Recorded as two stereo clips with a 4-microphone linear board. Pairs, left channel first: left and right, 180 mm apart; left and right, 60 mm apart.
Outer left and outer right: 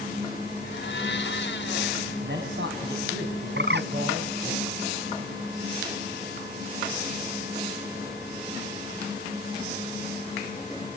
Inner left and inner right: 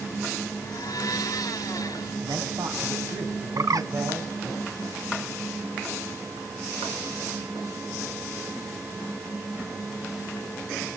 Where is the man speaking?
80° right, 3.5 m.